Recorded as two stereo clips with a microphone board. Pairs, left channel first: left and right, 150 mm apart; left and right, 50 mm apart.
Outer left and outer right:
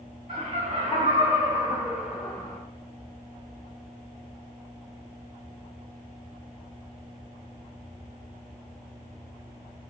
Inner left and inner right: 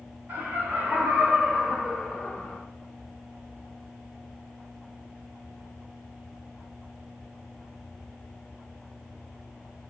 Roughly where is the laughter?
Right.